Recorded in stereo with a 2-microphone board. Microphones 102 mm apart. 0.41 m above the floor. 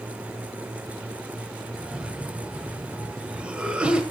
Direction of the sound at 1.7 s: 10° right (ahead or behind).